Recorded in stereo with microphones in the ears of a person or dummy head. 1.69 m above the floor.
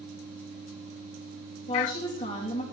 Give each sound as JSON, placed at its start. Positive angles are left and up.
{"t": 1.7, "sound": "a woman speaking", "side_deg": 35, "distance_m": 3.0}